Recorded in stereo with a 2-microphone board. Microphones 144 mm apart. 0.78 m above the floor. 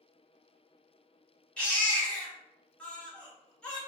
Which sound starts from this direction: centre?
A baby crying, at 1.6 s.